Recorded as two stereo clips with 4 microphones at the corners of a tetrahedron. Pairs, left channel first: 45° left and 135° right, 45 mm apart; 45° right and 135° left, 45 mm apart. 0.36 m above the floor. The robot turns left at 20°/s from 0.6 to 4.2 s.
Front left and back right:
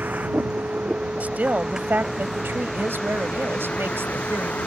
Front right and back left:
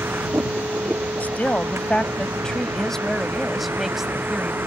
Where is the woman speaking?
90° right; by 4.6 s 150° right.